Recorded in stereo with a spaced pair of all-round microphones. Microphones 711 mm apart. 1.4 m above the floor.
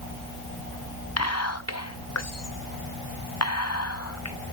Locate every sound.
1.2 s whispering: 25° left (ahead or behind), 0.5 m